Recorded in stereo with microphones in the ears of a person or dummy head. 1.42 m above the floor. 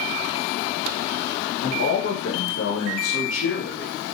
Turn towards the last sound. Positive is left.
turn(degrees=80)